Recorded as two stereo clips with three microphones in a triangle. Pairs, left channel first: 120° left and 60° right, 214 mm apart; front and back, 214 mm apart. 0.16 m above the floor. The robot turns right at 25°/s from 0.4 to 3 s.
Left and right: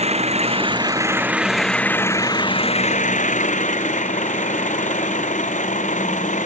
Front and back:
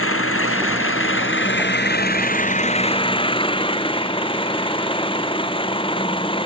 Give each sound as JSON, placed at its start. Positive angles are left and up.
{"t": 0.0, "sound": "an engine running", "azimuth_deg": 0}